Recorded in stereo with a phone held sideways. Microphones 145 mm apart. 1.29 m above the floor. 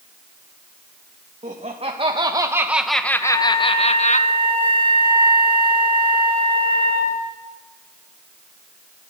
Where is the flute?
35° left (ahead or behind), 6.5 m.